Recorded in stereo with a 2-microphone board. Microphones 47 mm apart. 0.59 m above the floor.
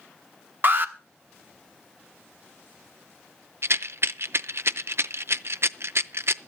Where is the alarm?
45° right (ahead or behind), 1.1 m.